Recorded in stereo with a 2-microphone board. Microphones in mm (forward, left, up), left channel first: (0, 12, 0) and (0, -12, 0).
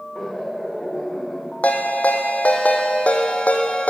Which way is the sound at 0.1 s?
20° left (ahead or behind).